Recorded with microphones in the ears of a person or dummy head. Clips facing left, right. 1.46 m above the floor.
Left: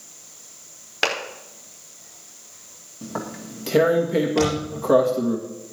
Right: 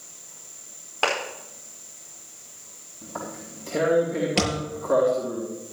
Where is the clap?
25° left (ahead or behind), 4.5 m.